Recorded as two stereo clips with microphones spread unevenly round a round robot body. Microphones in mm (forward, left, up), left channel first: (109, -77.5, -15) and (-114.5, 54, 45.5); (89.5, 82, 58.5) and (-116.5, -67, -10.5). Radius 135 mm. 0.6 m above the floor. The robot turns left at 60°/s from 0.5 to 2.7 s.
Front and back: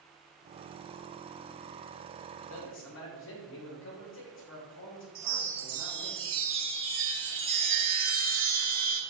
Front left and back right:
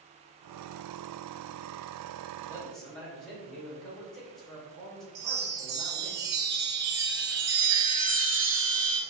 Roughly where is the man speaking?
Ahead right.